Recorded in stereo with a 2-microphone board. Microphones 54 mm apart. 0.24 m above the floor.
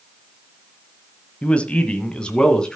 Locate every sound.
1.4 s a man speaking: 25° left (ahead or behind), 1.2 m; by 2.8 s 15° left (ahead or behind), 2 m